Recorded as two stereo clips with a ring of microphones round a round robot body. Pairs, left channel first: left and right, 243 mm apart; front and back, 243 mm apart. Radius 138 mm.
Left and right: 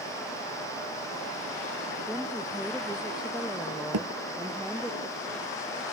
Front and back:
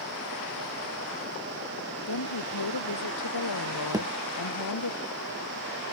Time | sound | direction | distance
2.1 | a woman speaking | 5° right | ?
3.9 | a thud | 105° right | ?